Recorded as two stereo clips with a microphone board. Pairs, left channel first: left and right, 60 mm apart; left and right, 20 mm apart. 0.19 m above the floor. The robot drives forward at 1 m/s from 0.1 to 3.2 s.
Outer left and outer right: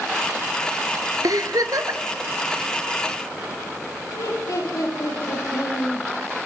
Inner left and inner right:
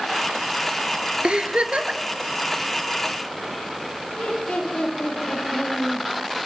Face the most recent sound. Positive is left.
turn(degrees=70)  # may be behind; listen again after turning